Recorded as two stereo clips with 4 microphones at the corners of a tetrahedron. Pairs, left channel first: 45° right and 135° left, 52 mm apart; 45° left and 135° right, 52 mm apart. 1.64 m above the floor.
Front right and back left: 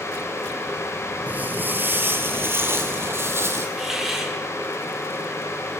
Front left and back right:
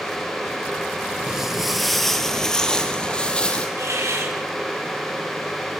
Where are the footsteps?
150° left, 1.9 m; by 3.7 s 110° left, 3.5 m.